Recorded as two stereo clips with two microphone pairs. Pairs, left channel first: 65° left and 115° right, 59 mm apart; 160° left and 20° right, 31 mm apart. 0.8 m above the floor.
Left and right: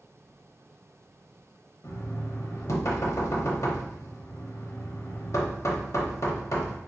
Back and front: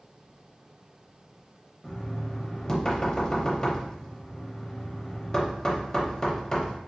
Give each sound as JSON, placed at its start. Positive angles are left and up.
{"t": 1.8, "sound": "knocking", "azimuth_deg": 85, "distance_m": 0.8}